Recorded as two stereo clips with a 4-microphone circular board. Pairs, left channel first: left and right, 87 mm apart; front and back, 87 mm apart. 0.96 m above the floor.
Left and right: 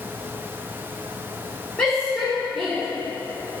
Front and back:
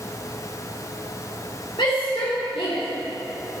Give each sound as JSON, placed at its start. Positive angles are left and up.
{"t": 1.8, "sound": "a shout", "azimuth_deg": 15, "distance_m": 2.5}